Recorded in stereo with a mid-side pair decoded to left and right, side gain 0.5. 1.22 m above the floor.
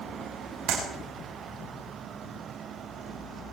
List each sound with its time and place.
0.7 s a clap: 60° right, 6 m